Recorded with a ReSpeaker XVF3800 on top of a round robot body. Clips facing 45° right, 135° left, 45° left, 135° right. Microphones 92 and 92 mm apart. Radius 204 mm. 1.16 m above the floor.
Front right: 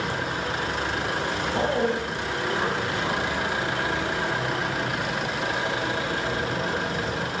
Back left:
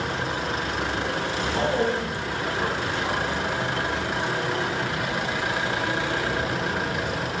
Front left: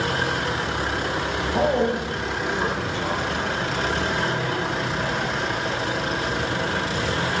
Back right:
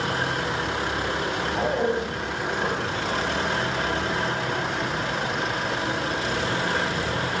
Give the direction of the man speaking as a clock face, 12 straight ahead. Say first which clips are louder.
Even, front left 4 dB; 11 o'clock.